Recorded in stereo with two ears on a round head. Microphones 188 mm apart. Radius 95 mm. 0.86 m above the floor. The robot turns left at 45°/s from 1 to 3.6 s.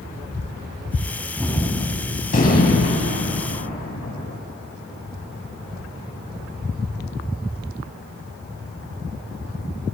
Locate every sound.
1.4 s a gunshot: straight behind, 5 m; by 4.4 s 80° left, 5 m